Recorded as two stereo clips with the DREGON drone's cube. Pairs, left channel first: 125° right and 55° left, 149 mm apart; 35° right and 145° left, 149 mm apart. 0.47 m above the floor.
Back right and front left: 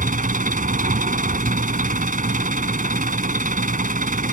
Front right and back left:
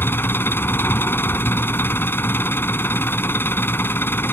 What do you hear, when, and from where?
0.0 s an engine running: 40° left